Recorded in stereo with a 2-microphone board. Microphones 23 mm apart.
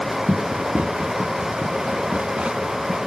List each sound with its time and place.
0.3 s running footsteps: 65° right (ahead or behind); by 3.0 s 50° right (ahead or behind)